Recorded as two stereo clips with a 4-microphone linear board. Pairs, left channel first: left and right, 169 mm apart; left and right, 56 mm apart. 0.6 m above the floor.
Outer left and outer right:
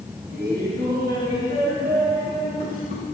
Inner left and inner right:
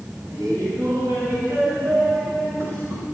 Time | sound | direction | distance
0.3 | laughter | 75° right (ahead or behind) | 4.5 m